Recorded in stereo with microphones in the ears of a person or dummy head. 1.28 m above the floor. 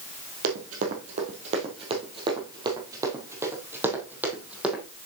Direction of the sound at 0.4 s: 50° right (ahead or behind).